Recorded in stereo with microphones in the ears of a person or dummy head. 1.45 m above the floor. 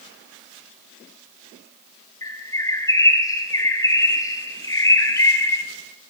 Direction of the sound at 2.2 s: 20° left (ahead or behind).